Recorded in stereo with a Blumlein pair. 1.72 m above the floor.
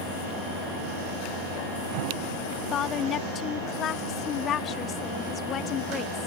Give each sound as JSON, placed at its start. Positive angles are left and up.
{"t": 2.5, "sound": "a woman speaking", "azimuth_deg": 25}